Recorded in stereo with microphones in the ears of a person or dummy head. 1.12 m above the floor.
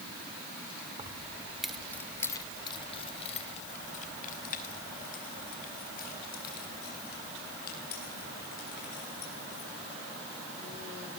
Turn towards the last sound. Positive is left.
turn(degrees=60)  # may be behind; listen again after turning